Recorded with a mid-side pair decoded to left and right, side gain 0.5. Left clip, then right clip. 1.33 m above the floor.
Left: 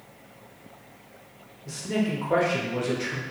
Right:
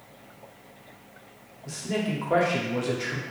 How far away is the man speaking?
About 0.9 m.